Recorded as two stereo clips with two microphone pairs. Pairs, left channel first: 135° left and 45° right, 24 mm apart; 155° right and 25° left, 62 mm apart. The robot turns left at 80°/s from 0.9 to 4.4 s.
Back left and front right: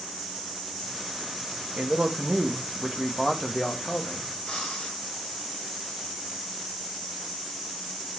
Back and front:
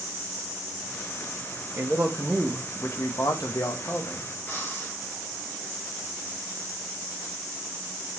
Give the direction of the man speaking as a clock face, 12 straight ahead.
1 o'clock.